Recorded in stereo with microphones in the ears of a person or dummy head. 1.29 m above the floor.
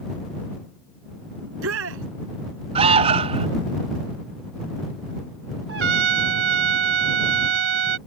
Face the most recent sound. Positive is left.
turn(degrees=-75)  # may be behind; listen again after turning